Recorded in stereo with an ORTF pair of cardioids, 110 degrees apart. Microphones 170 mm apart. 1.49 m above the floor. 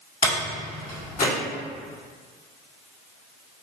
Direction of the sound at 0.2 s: 55° left.